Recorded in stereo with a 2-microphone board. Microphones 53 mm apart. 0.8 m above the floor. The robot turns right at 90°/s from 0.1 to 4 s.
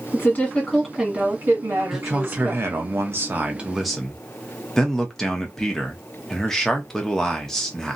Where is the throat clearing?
No throat clearing in this recording.